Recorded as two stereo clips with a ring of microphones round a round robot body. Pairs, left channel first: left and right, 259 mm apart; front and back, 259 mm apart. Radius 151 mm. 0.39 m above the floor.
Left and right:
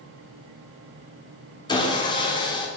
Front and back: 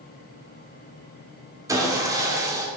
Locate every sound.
1.7 s sawing: 125° left, 1.1 m